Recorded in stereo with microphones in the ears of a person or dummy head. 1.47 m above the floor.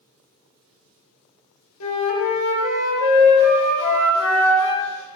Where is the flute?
80° left, 1.1 m.